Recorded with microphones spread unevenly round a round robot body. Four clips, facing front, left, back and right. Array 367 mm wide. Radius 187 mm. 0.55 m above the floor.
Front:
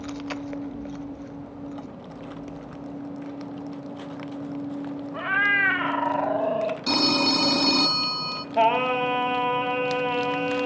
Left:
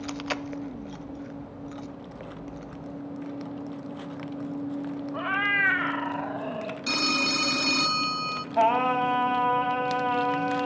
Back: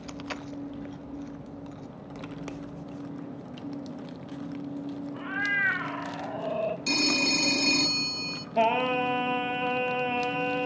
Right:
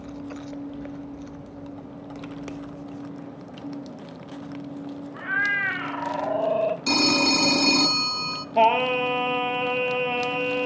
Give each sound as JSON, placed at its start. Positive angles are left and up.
{"t": 5.1, "sound": "a cat meowing", "azimuth_deg": 35, "distance_m": 1.5}
{"t": 6.9, "sound": "a phone ringing", "azimuth_deg": -50, "distance_m": 0.6}
{"t": 8.6, "sound": "singing", "azimuth_deg": -150, "distance_m": 1.2}